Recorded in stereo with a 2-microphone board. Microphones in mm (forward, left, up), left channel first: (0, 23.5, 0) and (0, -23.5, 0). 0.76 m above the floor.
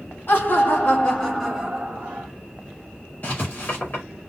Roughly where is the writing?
Left.